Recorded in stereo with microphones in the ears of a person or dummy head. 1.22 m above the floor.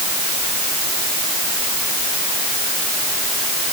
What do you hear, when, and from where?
Only background noise.